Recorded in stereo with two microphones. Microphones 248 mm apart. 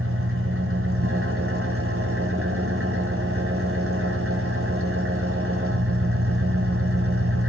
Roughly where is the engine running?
Right.